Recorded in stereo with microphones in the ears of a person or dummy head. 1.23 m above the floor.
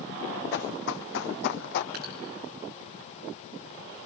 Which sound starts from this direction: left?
Running footsteps, at 0.5 s.